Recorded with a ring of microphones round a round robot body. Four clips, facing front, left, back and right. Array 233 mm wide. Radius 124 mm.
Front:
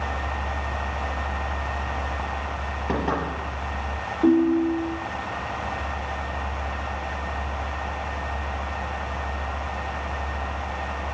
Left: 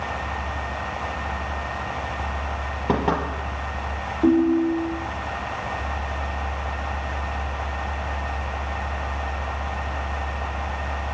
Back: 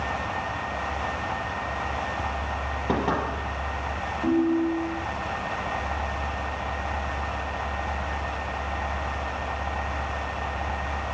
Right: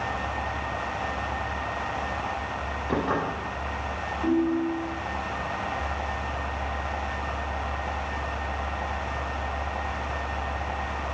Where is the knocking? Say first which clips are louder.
Left 4 dB, even; 95° left, 5 m.